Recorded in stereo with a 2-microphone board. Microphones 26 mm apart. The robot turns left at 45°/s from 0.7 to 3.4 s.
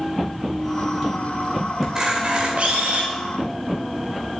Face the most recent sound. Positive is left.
turn(degrees=-90)